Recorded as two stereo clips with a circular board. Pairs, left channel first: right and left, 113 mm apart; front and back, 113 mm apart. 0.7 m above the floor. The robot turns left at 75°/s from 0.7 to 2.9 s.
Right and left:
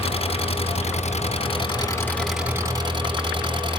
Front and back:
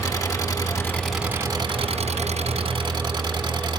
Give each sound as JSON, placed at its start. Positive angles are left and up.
{"t": 0.0, "sound": "an engine running", "azimuth_deg": -60, "distance_m": 3.5}